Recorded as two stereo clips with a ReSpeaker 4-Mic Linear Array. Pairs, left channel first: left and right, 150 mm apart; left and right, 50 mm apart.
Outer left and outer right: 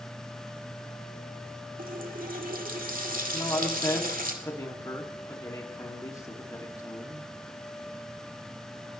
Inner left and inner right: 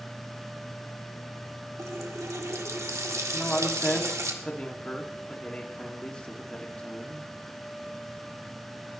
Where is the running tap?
70° right (ahead or behind), 1.8 m.